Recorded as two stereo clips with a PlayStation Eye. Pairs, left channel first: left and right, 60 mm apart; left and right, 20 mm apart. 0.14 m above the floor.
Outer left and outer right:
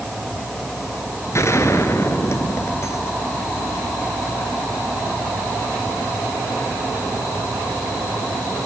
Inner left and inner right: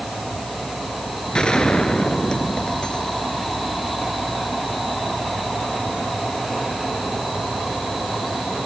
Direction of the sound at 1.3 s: 55° left (ahead or behind).